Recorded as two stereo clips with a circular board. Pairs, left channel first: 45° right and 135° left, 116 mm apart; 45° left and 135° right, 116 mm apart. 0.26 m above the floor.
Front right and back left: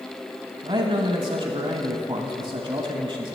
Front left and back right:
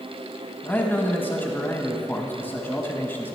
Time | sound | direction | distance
0.6 | a man speaking | 110° left | 1.3 m